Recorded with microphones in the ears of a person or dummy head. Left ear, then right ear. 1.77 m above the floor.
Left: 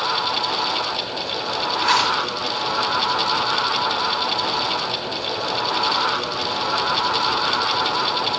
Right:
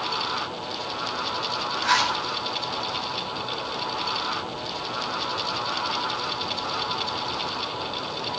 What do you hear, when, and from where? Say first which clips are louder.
1.8 s a zipper: left 3 dB; 30° left (ahead or behind), 5.5 m